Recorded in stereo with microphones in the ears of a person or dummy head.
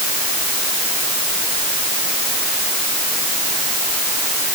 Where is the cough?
I don't hear a cough.